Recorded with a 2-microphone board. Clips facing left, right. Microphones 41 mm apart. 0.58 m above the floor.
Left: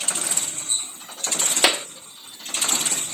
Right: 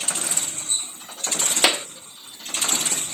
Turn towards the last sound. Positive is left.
turn(degrees=15)  # may be behind; listen again after turning